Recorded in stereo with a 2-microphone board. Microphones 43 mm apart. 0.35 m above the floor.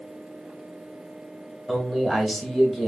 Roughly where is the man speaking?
Centre.